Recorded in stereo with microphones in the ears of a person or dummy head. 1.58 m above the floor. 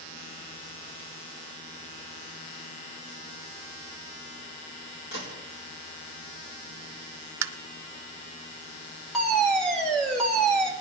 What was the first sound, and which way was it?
A gunshot, 50° left (ahead or behind).